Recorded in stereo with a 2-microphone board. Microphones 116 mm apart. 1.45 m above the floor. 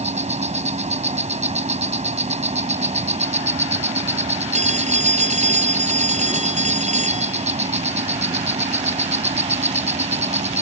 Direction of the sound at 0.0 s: 75° right (ahead or behind).